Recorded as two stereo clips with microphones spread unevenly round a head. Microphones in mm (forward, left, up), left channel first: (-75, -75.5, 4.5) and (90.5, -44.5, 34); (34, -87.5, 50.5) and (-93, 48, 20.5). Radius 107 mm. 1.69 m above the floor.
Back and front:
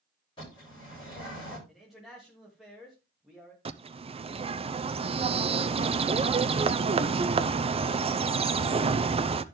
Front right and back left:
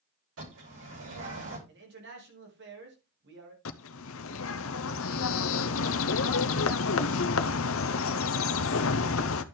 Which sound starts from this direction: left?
A man speaking, at 1.7 s.